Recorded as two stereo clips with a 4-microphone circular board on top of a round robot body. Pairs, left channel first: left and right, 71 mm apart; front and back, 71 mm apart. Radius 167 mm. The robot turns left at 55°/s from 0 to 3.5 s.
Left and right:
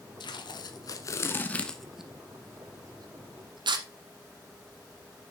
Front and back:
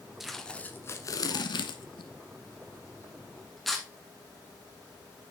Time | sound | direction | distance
0.2 | tape being pulled | 90° left | 0.9 m